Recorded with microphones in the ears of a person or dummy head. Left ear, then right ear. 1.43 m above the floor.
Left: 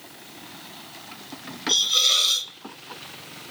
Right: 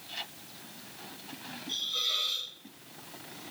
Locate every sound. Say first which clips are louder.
1.7 s a hiss: left 12 dB; 70° left (ahead or behind), 0.5 m